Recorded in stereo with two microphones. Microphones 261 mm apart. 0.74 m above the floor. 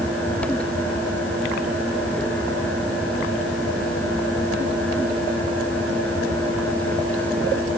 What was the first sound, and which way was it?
Only background noise.